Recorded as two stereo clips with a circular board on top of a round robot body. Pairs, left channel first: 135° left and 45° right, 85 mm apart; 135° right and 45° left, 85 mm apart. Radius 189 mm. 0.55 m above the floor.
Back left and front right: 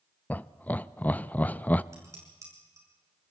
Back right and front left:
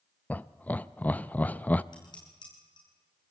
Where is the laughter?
Straight behind, 0.7 m.